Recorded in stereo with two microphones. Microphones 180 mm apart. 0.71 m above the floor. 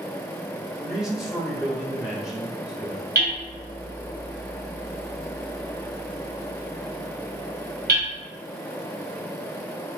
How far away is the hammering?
About 2 m.